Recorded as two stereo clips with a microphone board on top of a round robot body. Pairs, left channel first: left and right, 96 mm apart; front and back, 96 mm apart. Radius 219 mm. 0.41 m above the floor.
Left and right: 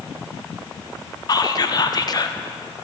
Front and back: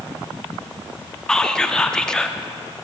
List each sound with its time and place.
1.3 s whispering: 80° left, 1.3 m